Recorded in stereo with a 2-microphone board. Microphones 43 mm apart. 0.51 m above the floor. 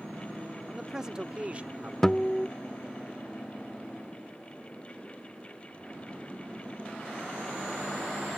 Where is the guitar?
10° left (ahead or behind).